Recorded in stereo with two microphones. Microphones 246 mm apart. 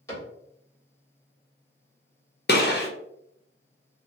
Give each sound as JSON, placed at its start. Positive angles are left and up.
{"t": 0.1, "sound": "a cupboard door", "side_deg": 15, "distance_m": 1.4}
{"t": 2.5, "sound": "a gunshot", "side_deg": 45, "distance_m": 0.6}